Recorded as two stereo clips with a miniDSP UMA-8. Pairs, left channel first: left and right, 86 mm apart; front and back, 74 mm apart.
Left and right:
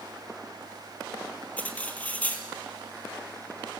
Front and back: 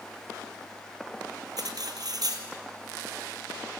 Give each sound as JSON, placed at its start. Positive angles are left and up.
{"t": 1.6, "sound": "cutlery clinking", "azimuth_deg": 160, "distance_m": 2.0}